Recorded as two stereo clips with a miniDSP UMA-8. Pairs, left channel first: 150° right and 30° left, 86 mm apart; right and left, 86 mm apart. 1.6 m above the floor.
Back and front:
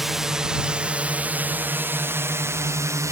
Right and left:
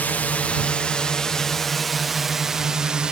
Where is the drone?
50° right; by 3.1 s 15° left.